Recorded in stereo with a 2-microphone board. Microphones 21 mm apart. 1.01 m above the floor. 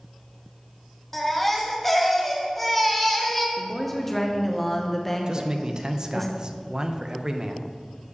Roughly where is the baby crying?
Centre.